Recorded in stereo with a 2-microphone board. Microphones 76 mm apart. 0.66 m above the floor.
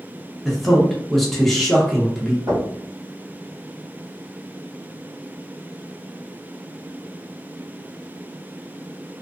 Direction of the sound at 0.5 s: 5° left (ahead or behind).